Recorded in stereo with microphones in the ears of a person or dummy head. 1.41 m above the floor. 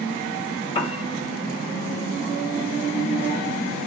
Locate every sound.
0.8 s a piano: 25° left (ahead or behind), 0.9 m